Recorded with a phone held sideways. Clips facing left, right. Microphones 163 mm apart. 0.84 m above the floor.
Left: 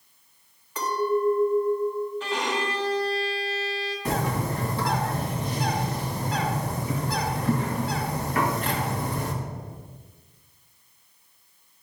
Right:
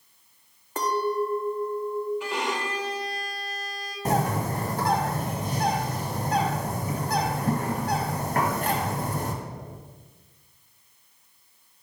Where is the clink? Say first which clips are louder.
Left 1 dB; 45° right (ahead or behind), 0.9 m.